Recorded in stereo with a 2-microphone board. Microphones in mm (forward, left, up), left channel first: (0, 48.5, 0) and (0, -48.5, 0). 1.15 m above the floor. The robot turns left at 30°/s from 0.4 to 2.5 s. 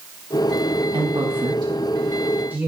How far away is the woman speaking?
About 1.6 m.